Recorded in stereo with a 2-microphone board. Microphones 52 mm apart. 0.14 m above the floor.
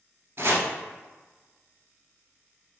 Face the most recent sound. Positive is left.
turn(degrees=-50)  # may be behind; listen again after turning